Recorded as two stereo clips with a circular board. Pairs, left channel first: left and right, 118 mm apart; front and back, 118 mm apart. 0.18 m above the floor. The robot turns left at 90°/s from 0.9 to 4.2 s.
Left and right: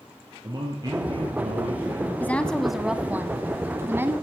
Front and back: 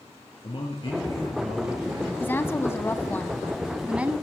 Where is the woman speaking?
45° left, 1.1 m; by 4.1 s 130° right, 1.1 m.